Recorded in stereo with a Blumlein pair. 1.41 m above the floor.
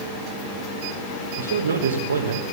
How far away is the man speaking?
About 1.3 m.